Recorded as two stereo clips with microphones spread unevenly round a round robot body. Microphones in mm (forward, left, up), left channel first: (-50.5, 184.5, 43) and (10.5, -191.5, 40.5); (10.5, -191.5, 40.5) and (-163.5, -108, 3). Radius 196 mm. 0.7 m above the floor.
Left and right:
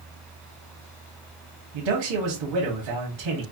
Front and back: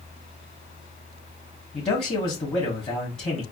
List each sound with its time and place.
1.7 s a man speaking: 90° right, 1.4 m